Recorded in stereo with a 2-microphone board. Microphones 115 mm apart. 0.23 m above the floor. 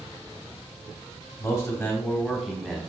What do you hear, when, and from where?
1.4 s a man speaking: 30° left (ahead or behind), 1.3 m; by 2.8 s 5° right (ahead or behind), 1.4 m